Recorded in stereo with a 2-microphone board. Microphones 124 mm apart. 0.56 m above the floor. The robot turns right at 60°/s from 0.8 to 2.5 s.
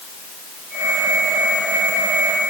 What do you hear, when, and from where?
Only background noise.